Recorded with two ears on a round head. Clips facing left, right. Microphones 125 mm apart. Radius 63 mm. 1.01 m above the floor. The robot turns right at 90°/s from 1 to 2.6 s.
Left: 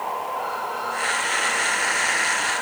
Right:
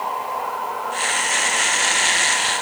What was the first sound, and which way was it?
Only background noise.